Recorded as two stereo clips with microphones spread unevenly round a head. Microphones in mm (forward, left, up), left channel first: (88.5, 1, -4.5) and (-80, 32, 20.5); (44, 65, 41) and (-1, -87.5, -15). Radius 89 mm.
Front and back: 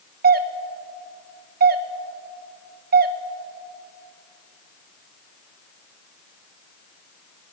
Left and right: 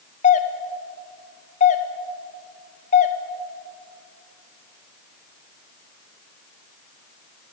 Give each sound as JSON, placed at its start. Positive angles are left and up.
{"t": 0.2, "sound": "a doorbell", "azimuth_deg": 130, "distance_m": 1.1}